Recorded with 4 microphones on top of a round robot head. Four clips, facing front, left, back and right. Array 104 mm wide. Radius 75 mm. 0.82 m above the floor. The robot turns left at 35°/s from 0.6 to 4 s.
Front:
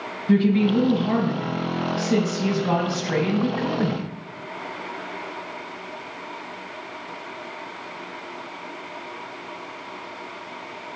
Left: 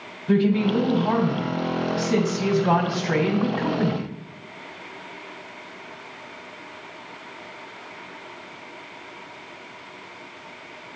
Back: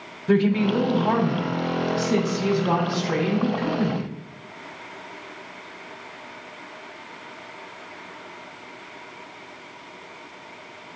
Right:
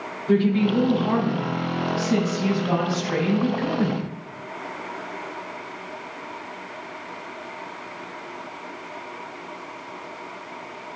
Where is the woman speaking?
175° right, 2.5 m; by 4.0 s 65° left, 2.5 m.